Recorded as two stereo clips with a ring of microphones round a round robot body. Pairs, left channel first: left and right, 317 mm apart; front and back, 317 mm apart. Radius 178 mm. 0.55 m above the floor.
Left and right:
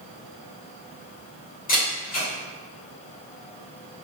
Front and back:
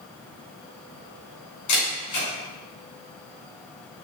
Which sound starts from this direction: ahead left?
A camera shutter, at 1.7 s.